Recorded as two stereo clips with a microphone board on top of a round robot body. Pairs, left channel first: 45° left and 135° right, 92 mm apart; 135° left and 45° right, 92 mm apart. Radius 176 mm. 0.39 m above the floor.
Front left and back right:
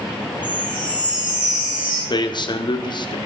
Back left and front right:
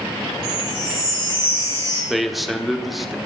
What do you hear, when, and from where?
0.4 s a chime: 60° right, 8 m
2.1 s a man speaking: 45° left, 1.5 m